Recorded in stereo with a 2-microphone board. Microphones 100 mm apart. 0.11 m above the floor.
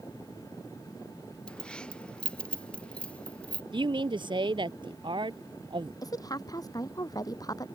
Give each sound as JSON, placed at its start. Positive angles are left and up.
{"t": 1.5, "sound": "keys jangling", "side_deg": 10}
{"t": 3.7, "sound": "a man speaking", "side_deg": -55}
{"t": 6.0, "sound": "a woman speaking", "side_deg": 40}